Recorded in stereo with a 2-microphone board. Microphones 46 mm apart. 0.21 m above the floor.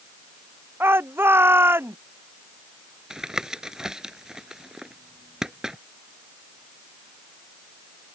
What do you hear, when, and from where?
0.8 s a shout: 55° right (ahead or behind)
3.1 s tapping: 15° right (ahead or behind)